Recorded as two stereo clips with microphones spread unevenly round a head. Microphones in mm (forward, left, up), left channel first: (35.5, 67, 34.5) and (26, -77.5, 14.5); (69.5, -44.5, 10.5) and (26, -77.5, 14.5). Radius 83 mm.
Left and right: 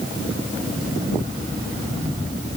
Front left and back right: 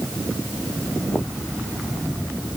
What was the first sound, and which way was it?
Only background noise.